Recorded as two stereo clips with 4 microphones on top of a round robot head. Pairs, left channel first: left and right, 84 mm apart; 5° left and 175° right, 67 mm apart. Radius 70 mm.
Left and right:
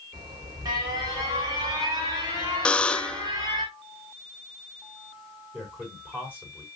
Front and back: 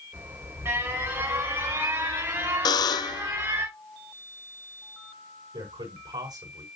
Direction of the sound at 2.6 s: 15° left.